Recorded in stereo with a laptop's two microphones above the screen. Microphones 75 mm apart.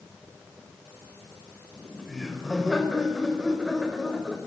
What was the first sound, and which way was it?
Laughter, centre (ahead or behind).